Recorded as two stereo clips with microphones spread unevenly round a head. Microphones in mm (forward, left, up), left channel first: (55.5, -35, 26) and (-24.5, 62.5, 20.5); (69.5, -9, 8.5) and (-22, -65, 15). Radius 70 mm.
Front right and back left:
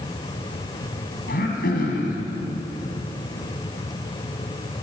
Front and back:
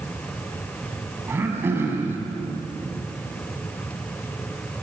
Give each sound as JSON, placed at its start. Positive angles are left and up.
{"t": 1.3, "sound": "throat clearing", "azimuth_deg": -80, "distance_m": 5.5}